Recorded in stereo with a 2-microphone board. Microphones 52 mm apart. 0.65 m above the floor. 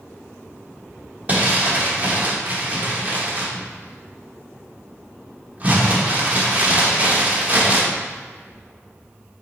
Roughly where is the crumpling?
Right.